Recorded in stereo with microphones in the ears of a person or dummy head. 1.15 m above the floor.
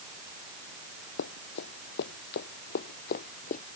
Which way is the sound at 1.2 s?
70° left (ahead or behind).